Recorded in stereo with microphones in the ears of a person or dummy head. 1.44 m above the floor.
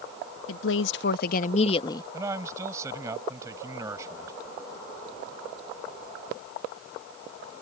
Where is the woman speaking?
75° left (ahead or behind); by 2.0 s 20° left (ahead or behind).